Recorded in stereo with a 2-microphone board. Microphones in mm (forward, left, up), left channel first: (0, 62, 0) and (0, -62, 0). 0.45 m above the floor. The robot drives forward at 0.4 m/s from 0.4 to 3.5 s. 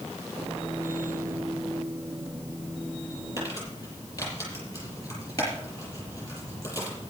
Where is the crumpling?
25° left (ahead or behind), 7 m.